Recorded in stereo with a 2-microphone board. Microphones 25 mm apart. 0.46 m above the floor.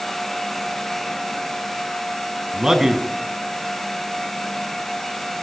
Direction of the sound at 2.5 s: 30° right (ahead or behind).